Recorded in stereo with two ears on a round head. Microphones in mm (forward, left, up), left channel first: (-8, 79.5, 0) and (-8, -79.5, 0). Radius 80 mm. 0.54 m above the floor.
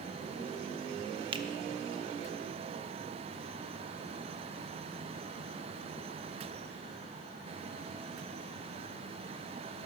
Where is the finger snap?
30° right (ahead or behind), 0.5 m.